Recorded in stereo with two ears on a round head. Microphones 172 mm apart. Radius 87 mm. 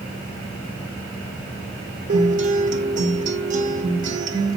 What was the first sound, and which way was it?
A guitar, 40° right (ahead or behind).